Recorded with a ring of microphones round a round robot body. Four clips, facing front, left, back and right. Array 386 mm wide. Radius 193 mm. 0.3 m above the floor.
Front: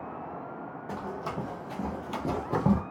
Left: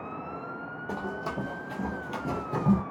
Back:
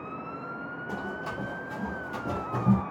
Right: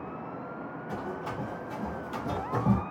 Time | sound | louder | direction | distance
0.9 | running footsteps | left 3 dB, front 1 dB | 85° left | 1.1 m